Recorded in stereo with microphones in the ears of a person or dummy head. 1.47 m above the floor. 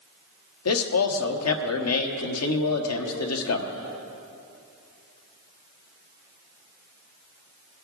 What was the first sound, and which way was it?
A man speaking, 80° left.